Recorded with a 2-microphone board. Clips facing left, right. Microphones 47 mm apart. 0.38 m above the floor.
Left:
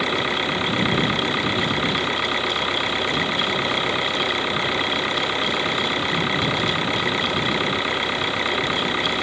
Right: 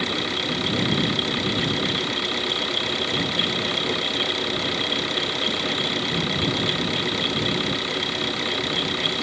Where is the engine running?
30° left (ahead or behind).